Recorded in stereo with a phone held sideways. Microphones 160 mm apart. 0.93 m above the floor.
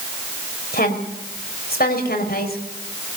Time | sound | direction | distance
0.7 | a woman speaking | 75° left (ahead or behind) | 5 m